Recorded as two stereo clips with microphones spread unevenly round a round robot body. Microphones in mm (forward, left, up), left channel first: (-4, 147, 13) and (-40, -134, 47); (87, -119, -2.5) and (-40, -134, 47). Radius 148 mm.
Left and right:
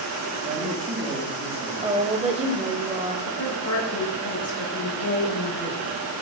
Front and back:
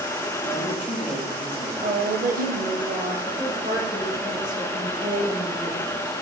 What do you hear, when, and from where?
0.4 s a woman speaking: 25° right, 3 m
1.8 s a woman speaking: 170° right, 1.4 m
3.2 s a woman speaking: 120° left, 4 m